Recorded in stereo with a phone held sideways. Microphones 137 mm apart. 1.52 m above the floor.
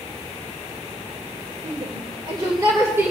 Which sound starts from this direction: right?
A shout, at 1.6 s.